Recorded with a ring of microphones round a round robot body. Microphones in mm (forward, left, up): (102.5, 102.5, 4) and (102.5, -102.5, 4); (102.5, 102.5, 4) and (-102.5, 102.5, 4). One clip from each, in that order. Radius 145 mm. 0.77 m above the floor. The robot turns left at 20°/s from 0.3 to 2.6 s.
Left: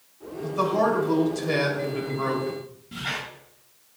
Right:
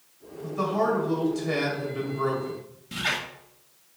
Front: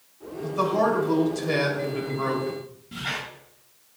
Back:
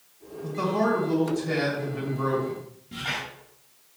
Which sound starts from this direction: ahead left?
A man speaking, at 0.4 s.